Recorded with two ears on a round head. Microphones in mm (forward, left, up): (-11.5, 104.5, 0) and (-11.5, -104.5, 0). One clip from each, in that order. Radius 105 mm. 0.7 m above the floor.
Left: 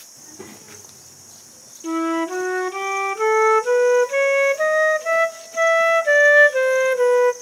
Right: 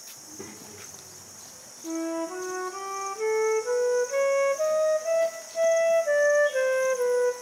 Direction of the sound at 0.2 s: 30° left (ahead or behind).